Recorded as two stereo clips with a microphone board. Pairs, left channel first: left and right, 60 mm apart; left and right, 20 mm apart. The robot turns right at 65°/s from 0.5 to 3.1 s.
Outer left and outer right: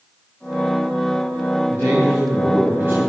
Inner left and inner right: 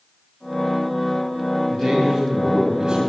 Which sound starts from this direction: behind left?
A man speaking, at 1.7 s.